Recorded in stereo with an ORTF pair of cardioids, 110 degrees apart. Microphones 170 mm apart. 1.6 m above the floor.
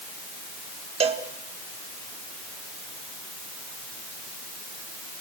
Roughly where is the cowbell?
Ahead right.